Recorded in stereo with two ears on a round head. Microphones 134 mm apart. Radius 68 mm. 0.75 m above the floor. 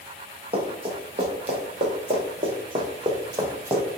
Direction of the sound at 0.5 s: 35° right (ahead or behind).